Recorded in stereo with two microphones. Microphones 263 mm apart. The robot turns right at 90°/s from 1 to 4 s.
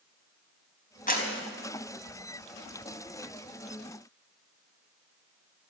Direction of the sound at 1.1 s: 30° left (ahead or behind).